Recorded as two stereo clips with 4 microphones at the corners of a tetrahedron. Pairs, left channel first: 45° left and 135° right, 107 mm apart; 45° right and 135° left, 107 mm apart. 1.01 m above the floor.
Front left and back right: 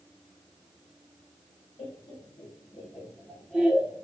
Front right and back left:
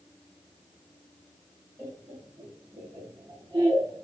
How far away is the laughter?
About 1.1 m.